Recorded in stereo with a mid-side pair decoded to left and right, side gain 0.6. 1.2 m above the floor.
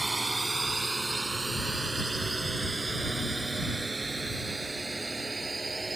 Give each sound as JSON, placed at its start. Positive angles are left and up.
{"t": 0.0, "sound": "a drone", "azimuth_deg": -15}